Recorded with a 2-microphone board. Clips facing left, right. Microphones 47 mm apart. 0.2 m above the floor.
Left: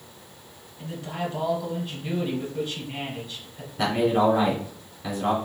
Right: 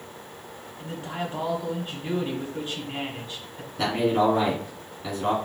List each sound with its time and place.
0.8 s a man speaking: 25° right (ahead or behind), 1.1 m
3.8 s a man speaking: 5° right (ahead or behind), 1.9 m